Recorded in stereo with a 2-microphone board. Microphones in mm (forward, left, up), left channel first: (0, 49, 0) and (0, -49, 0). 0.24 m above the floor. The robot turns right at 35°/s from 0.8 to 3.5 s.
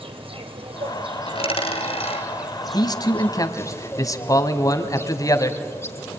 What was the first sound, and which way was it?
An insect, 65° right.